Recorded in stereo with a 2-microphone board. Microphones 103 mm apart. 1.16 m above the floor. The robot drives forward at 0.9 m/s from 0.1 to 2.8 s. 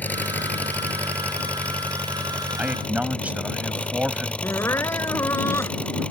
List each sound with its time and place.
0.0 s an engine running: 15° left (ahead or behind); by 6.1 s 10° left (ahead or behind)
2.6 s a man speaking: 15° right (ahead or behind)
4.4 s crying: 25° left (ahead or behind)